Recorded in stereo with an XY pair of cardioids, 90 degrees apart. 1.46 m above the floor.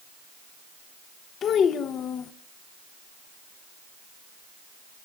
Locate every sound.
1.4 s a child speaking: 70° left, 1.2 m